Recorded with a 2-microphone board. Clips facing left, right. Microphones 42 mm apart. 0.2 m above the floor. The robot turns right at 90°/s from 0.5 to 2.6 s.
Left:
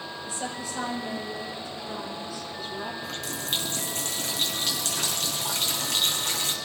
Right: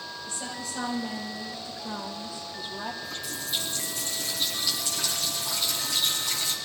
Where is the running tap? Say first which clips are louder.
Left 2 dB; 70° left (ahead or behind), 3.5 m.